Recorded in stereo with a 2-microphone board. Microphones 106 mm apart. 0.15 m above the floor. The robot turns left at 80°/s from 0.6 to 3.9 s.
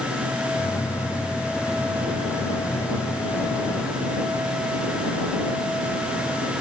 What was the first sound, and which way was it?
Only background noise.